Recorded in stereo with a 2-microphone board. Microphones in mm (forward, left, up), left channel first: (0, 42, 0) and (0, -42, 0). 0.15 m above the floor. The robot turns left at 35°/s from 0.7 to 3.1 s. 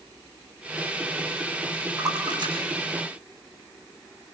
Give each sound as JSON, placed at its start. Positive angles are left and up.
{"t": 2.0, "sound": "a splash", "side_deg": -45, "distance_m": 5.0}